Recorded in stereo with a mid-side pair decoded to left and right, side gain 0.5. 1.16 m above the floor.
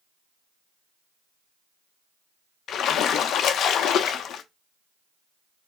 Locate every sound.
2.7 s a splash: 60° left, 0.8 m